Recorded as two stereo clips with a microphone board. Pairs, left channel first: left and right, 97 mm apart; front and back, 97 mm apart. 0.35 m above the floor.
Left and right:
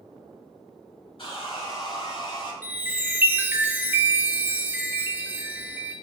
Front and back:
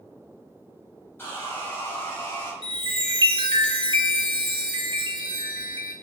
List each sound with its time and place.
1.2 s sawing: 65° left, 1.4 m
2.6 s a chime: 160° right, 0.6 m